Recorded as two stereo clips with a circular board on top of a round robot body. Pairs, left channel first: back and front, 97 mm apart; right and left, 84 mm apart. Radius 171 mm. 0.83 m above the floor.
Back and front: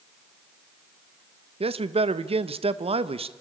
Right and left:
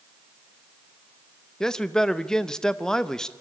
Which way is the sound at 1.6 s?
5° right.